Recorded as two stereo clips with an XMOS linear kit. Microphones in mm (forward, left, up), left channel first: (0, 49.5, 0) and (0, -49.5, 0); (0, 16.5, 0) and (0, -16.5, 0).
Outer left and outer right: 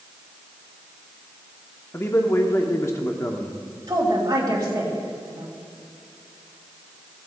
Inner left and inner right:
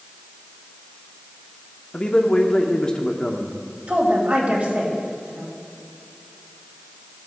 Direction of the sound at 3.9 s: 40° right (ahead or behind).